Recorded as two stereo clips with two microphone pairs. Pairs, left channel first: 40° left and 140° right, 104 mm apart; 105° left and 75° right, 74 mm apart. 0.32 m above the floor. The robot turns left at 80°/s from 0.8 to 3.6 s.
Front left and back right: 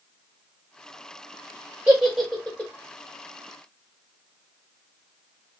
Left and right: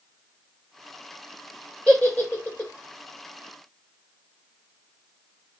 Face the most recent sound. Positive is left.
turn(degrees=20)